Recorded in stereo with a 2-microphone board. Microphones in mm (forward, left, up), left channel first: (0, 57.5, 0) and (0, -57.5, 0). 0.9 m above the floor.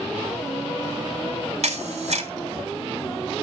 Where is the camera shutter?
80° right, 3 m.